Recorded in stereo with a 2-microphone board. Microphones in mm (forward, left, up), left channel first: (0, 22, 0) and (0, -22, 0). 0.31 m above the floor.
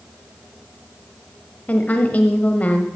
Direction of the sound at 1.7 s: 35° left (ahead or behind).